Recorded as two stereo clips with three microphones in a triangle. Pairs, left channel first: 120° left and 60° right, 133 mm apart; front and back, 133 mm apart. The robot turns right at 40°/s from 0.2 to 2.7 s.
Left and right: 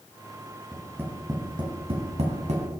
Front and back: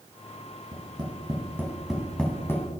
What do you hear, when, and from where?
0.7 s tapping: 140° right, 2.5 m; by 2.7 s 65° right, 2.5 m